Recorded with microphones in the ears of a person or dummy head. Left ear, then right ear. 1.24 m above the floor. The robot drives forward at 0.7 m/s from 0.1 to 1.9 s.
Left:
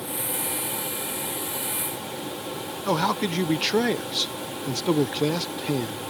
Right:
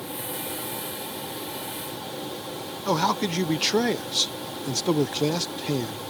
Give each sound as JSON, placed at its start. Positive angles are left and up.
{"t": 2.9, "sound": "a man speaking", "side_deg": 0}